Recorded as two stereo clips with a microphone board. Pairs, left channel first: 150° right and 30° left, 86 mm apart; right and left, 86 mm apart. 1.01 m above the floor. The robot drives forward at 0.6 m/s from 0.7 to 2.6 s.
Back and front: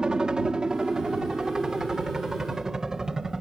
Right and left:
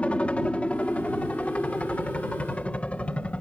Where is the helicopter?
35° right; by 3.4 s 40° right.